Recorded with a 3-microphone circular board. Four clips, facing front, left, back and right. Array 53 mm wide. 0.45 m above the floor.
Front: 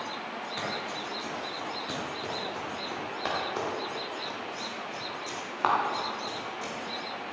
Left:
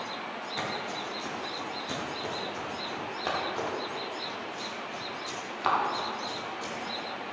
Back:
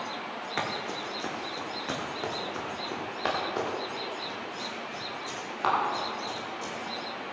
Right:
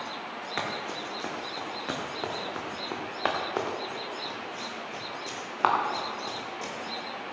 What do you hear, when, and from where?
0.6 s running footsteps: 135° right, 3.5 m; by 6.7 s 70° right, 4 m